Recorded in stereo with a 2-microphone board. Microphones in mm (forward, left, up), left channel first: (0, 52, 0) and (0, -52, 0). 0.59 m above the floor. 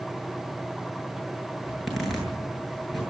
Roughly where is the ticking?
I don't hear ticking.